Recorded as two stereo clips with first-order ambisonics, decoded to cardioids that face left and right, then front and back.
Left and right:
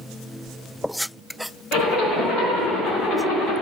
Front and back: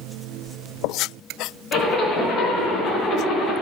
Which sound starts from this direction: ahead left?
A zipper, at 1.7 s.